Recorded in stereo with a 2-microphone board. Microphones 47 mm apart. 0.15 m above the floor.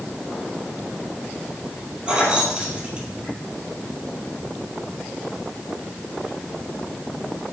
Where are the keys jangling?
25° right (ahead or behind), 3 m.